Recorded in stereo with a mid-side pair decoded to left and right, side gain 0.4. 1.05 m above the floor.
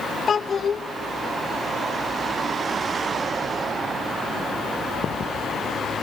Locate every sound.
0.3 s a child speaking: 40° left, 0.7 m